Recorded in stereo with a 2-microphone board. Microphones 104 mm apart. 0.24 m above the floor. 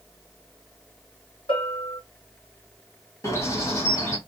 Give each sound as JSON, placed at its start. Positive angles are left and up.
{"t": 1.5, "sound": "a bell", "side_deg": 60, "distance_m": 1.9}
{"t": 3.2, "sound": "a bird", "side_deg": 30, "distance_m": 1.4}